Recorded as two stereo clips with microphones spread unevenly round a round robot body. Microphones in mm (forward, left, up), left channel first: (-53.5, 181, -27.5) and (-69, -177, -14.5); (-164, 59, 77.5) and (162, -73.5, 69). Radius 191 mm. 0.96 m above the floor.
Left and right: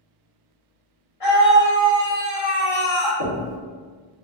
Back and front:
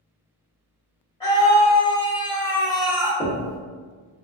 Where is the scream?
80° left, 1.8 m; by 3.1 s 55° left, 0.5 m.